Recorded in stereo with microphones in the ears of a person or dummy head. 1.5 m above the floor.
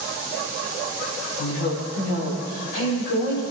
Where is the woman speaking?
75° left (ahead or behind), 6.5 m.